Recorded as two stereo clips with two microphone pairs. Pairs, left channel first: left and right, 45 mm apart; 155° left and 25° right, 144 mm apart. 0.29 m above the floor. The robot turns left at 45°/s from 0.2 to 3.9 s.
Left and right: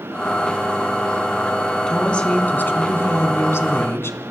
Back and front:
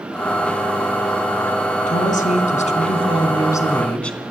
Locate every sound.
1.9 s a woman speaking: 165° left, 2.5 m; by 4.2 s 75° left, 2.5 m